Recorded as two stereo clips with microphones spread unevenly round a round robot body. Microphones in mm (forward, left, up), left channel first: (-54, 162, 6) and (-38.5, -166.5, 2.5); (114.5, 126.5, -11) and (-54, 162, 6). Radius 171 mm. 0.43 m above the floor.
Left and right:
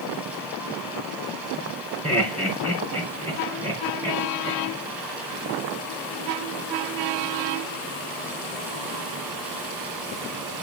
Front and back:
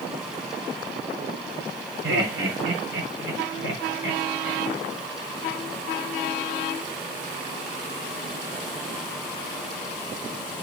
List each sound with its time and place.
2.0 s laughter: straight behind, 4.5 m